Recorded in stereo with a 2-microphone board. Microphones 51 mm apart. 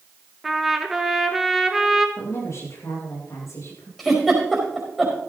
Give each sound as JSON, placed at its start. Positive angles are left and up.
{"t": 0.4, "sound": "a trumpet", "side_deg": -5, "distance_m": 1.4}
{"t": 2.2, "sound": "a woman speaking", "side_deg": 70, "distance_m": 7.0}
{"t": 4.0, "sound": "a giggle", "side_deg": 0, "distance_m": 5.0}